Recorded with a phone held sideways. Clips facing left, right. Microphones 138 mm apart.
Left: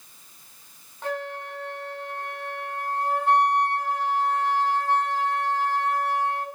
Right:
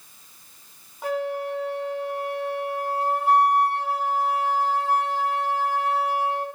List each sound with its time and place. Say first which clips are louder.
1.0 s a flute: right 5 dB; 10° right (ahead or behind), 9 m